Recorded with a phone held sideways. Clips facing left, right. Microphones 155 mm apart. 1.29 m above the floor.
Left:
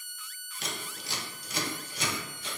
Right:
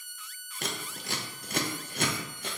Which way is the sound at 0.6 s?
60° right (ahead or behind).